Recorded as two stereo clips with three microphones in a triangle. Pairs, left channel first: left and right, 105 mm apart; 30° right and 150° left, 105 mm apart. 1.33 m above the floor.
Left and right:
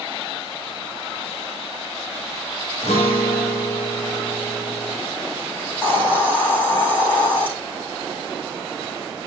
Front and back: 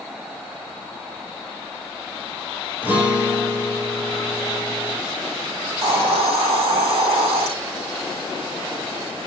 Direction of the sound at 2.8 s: 75° left.